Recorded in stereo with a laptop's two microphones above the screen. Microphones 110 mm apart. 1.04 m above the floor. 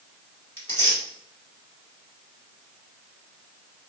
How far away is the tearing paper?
About 2.0 m.